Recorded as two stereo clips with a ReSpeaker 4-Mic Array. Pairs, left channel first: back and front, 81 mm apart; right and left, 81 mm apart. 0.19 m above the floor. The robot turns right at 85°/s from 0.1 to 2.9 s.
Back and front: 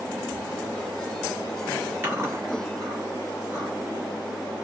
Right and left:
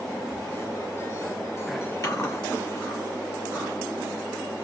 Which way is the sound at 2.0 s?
55° right.